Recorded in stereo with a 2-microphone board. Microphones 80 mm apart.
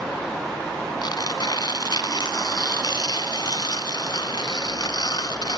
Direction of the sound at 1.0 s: 60° left (ahead or behind).